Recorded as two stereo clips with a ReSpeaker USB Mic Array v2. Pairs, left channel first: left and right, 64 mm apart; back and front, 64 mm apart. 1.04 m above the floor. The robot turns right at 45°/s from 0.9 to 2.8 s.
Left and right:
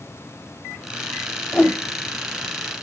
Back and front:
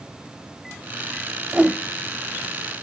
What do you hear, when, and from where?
1.5 s a whoosh: 55° left, 0.9 m; by 1.8 s 65° left, 0.9 m